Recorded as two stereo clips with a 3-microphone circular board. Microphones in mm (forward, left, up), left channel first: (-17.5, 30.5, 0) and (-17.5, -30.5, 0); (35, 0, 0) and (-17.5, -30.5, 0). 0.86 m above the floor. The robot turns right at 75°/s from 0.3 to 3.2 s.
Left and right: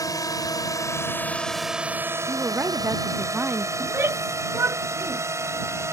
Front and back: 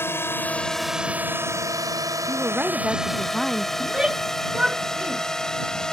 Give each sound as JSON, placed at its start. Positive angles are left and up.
{"t": 0.0, "sound": "a drone", "azimuth_deg": 80}
{"t": 2.3, "sound": "a woman speaking", "azimuth_deg": -130}
{"t": 3.8, "sound": "a shout", "azimuth_deg": -80}